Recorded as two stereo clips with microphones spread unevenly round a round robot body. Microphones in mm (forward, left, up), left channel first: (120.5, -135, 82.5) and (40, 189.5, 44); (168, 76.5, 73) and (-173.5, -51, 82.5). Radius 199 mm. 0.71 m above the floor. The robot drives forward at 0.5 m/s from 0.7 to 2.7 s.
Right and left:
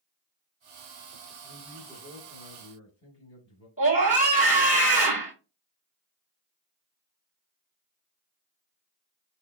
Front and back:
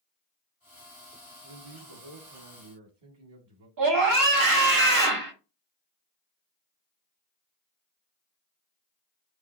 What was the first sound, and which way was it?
A man speaking, 140° right.